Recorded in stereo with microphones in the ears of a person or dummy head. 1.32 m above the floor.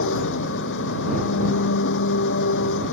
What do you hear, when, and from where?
0.0 s an engine running: 60° left (ahead or behind)